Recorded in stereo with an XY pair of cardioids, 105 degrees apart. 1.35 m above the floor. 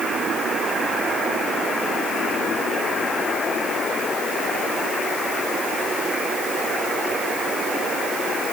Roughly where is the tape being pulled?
I don't hear tape being pulled.